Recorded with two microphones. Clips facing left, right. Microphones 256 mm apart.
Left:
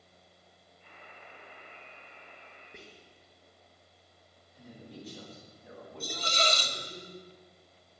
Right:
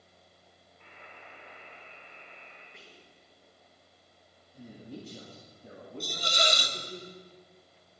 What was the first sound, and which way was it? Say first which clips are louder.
A buzzer: right 1 dB; 80° right.